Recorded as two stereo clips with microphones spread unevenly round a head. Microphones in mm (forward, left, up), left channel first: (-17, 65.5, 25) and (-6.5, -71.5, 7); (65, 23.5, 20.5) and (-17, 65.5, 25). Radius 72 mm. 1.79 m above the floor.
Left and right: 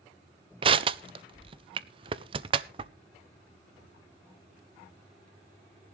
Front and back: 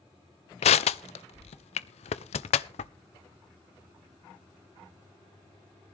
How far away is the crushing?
About 0.6 m.